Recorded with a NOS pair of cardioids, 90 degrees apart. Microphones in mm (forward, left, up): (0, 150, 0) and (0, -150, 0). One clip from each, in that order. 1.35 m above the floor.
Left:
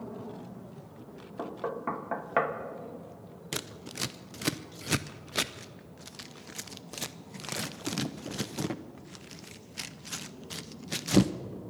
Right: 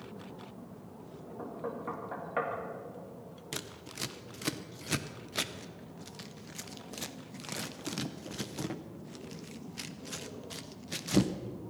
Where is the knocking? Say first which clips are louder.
Left 5 dB; 50° left, 1.5 m.